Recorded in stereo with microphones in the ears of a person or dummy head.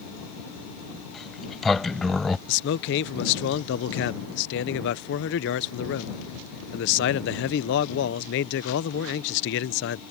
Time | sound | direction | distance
1.1 | a sliding door | centre (ahead or behind) | ?
2.5 | a man speaking | 60° left (ahead or behind) | ?